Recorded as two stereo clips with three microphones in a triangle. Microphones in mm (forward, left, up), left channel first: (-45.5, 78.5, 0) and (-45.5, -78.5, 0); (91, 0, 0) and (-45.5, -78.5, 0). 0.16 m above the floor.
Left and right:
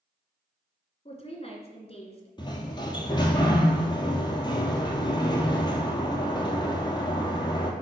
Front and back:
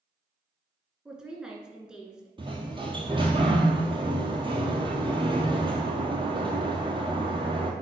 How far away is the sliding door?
About 1.4 m.